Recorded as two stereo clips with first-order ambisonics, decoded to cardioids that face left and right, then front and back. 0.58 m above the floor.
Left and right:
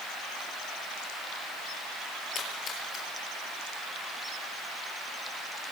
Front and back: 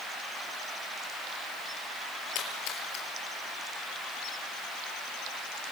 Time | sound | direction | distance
2.4 | a splash | 30° left | 6 m